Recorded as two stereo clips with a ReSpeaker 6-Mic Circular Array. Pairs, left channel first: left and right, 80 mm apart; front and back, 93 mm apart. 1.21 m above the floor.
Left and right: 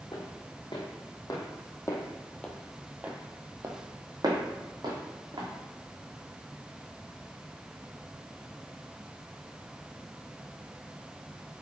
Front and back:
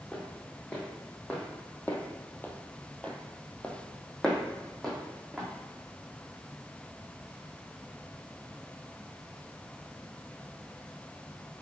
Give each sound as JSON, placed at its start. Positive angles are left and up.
{"t": 0.1, "sound": "footsteps", "azimuth_deg": 75, "distance_m": 3.0}